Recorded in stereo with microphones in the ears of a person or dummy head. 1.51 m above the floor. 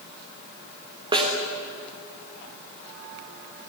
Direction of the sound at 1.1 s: 20° right (ahead or behind).